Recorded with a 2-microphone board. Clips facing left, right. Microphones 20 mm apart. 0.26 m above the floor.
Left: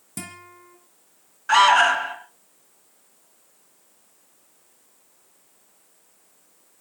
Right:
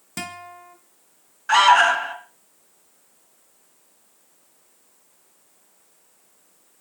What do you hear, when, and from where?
0.2 s a guitar: 35° right (ahead or behind), 2 m
1.5 s an alarm: centre (ahead or behind), 2.0 m